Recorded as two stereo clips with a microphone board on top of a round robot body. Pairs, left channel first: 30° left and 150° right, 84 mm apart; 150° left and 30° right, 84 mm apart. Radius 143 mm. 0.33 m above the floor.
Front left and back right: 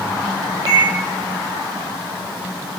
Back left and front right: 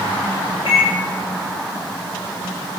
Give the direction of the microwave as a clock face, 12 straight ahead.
6 o'clock.